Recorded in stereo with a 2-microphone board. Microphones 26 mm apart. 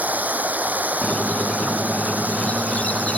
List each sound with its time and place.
0.0 s running water: 80° right
1.0 s a squeak: 55° left (ahead or behind)